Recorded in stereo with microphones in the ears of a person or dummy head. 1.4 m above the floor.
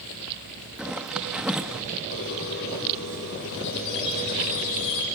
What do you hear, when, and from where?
0.8 s a zipper: centre (ahead or behind), 0.9 m
2.1 s a squeak: 70° left (ahead or behind), 5 m